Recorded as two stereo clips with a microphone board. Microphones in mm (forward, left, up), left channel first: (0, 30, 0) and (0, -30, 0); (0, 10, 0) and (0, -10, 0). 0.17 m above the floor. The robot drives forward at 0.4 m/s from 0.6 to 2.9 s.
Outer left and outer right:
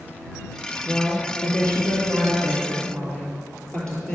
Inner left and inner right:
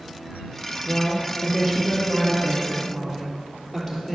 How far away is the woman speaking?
About 2.5 m.